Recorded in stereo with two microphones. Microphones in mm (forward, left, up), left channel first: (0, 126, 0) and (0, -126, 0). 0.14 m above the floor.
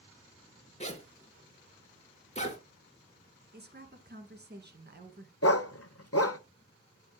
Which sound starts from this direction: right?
A woman speaking, at 3.5 s.